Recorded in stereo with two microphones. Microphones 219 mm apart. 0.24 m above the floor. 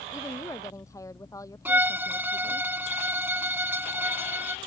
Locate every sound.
0.1 s a woman speaking: 15° left (ahead or behind)
1.6 s a violin: 10° right (ahead or behind)